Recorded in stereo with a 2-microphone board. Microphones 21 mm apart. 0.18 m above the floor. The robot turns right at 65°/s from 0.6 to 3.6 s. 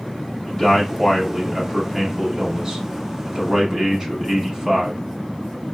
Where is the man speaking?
20° left (ahead or behind), 1.1 m; by 5.0 s 15° right (ahead or behind), 1.1 m.